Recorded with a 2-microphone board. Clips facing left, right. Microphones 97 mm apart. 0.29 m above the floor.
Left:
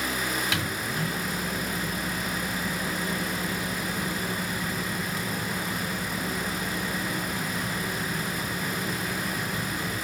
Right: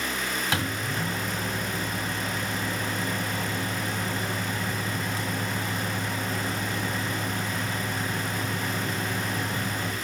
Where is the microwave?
40° right (ahead or behind), 1.7 m.